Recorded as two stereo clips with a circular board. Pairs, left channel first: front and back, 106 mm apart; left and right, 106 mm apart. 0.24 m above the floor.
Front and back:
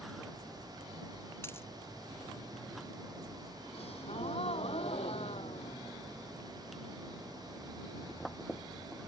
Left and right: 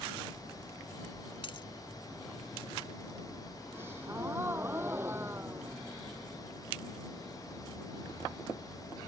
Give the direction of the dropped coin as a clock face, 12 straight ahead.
10 o'clock.